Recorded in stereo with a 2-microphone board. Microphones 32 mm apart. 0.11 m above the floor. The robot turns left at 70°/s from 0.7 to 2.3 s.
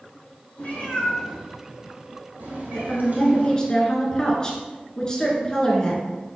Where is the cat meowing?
40° left (ahead or behind), 2.5 m; by 3.5 s 60° right (ahead or behind), 2.5 m.